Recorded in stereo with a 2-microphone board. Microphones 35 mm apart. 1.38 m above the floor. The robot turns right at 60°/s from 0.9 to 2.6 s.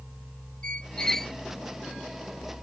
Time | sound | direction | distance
0.6 | a squeak | 25° left (ahead or behind) | ?